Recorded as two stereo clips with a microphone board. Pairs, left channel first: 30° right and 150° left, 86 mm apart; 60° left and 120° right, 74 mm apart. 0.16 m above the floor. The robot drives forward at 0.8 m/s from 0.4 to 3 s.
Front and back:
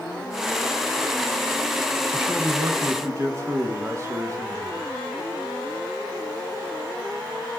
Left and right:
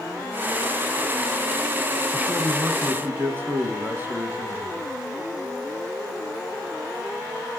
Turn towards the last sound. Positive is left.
turn(degrees=-170)